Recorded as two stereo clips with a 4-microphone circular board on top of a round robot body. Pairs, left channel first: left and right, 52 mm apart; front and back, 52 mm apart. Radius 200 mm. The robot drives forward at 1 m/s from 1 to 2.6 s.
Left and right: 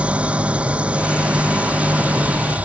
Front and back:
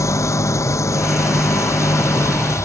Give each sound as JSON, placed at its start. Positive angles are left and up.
{"t": 0.0, "sound": "an engine running", "azimuth_deg": -25}